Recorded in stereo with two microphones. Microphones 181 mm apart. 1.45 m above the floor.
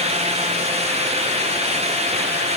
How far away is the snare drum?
I don't hear a snare drum.